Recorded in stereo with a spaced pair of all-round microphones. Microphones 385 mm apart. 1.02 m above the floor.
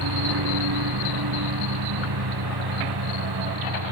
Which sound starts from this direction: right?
A lawn mower, at 0.0 s.